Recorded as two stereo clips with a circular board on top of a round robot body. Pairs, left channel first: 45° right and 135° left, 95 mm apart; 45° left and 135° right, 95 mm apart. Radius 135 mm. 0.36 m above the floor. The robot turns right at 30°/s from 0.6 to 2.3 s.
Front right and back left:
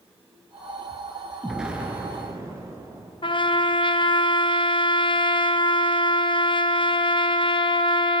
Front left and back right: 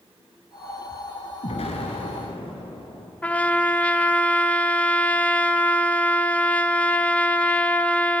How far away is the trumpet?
About 1.2 m.